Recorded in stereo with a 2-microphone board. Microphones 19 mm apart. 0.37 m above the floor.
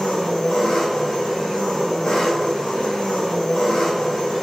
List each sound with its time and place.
0.0 s an engine running: 75° left (ahead or behind), 4 m